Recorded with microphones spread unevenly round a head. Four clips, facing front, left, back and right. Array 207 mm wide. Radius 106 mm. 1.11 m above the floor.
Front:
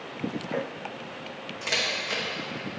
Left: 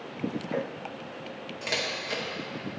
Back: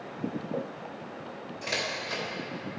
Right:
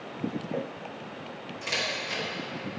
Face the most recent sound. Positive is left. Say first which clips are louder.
# even, front 2 dB
turn(degrees=75)